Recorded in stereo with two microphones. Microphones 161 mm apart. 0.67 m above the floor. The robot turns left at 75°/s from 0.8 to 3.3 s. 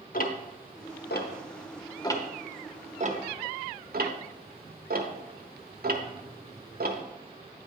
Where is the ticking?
60° left (ahead or behind), 0.8 m; by 7.0 s 70° right (ahead or behind), 0.8 m.